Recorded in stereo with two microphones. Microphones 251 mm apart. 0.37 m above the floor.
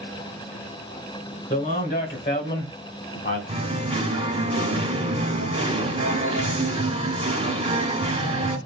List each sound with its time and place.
1.5 s a man speaking: 35° left (ahead or behind), 1.7 m; by 3.4 s 55° left (ahead or behind), 2 m
3.5 s singing: 25° right (ahead or behind), 1.2 m